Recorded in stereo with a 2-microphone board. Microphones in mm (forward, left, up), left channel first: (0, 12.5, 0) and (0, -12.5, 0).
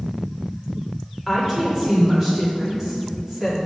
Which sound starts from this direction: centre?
A woman speaking, at 1.3 s.